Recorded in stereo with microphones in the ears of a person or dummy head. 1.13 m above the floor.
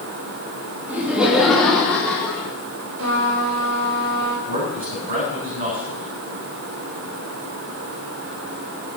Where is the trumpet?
75° right (ahead or behind), 4 m.